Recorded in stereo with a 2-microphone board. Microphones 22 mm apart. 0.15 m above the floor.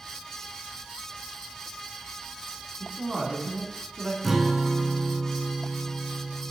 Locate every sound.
2.8 s a man speaking: 25° right (ahead or behind), 1.8 m
4.2 s a guitar: 10° right (ahead or behind), 0.6 m